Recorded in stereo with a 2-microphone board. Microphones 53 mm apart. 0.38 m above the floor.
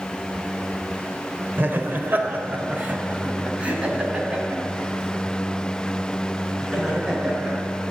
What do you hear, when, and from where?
1.6 s laughter: 45° right (ahead or behind), 1.2 m; by 7.5 s 15° right (ahead or behind), 5 m